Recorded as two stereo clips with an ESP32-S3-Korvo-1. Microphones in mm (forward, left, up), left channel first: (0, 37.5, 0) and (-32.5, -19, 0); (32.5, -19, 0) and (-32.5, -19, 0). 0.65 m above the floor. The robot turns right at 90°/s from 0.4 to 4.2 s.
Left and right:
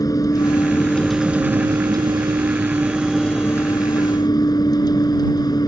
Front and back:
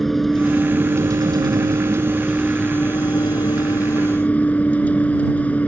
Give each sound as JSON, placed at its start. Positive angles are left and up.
{"t": 0.0, "sound": "a vehicle", "azimuth_deg": 85}